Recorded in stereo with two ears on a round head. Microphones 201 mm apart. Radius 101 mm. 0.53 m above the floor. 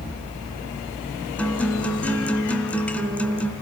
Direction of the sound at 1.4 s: 5° left (ahead or behind).